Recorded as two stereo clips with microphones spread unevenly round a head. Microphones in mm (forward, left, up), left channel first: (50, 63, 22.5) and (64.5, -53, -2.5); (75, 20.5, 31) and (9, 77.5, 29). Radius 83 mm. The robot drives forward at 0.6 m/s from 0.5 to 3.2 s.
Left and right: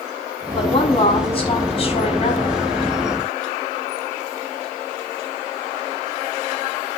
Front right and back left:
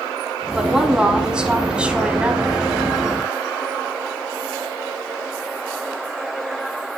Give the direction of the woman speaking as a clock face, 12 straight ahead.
10 o'clock.